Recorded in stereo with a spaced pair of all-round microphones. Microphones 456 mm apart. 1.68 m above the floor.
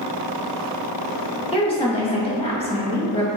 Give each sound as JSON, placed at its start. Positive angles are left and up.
{"t": 1.5, "sound": "a woman speaking", "side_deg": 15, "distance_m": 0.6}